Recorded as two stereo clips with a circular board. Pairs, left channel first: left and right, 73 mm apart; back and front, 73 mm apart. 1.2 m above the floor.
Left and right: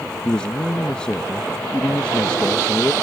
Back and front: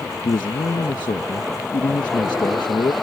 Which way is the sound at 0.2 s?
165° left.